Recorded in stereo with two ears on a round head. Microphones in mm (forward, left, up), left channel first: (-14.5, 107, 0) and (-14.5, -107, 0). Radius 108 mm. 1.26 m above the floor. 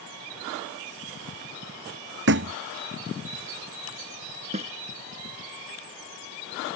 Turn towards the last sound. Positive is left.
turn(degrees=-30)  # may be behind; listen again after turning